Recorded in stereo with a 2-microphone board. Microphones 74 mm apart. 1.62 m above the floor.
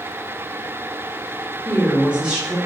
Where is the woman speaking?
15° right (ahead or behind), 1.1 m.